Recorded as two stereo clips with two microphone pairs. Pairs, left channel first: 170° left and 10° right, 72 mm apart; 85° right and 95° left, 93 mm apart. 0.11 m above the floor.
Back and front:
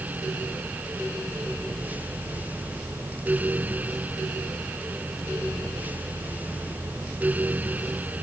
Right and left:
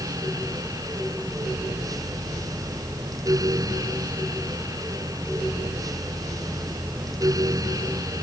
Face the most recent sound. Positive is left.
No sound to turn to.